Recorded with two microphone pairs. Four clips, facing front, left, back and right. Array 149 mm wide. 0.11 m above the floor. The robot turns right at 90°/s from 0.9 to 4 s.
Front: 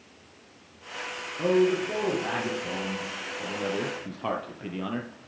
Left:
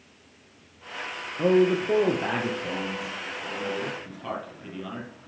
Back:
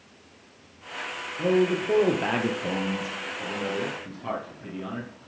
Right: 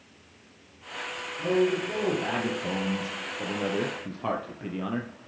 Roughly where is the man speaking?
Left.